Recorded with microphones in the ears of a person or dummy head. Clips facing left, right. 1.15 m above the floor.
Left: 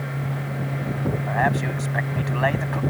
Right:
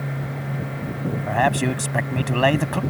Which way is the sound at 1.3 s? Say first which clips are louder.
Right 5 dB; 45° right (ahead or behind).